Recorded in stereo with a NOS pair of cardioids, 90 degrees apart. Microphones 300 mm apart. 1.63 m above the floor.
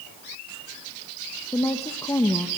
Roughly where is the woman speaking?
Ahead.